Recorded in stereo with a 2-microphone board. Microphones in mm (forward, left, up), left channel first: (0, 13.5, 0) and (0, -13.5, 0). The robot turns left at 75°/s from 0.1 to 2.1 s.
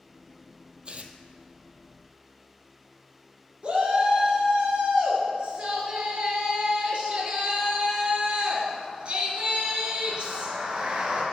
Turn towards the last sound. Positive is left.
turn(degrees=-45)  # may be behind; listen again after turning